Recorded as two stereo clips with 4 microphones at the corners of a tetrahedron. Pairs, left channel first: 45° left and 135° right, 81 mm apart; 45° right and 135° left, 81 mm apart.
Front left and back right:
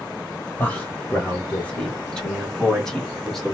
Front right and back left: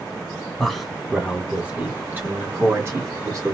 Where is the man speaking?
35° left, 1.4 m; by 3.5 s 135° left, 1.8 m.